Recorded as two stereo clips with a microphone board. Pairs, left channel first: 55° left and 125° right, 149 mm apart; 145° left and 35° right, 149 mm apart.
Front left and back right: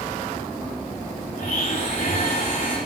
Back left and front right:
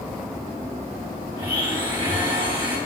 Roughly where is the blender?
Ahead left.